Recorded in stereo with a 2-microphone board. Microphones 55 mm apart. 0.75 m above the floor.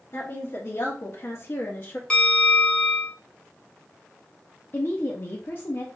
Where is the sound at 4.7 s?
45° left (ahead or behind), 0.7 m.